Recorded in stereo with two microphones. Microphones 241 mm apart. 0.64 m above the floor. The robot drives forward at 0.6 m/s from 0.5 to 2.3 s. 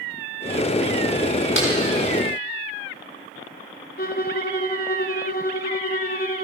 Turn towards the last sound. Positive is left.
turn(degrees=40)  # may be behind; listen again after turning